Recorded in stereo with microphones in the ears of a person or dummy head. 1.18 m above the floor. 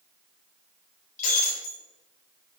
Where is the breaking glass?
45° left (ahead or behind), 3 m.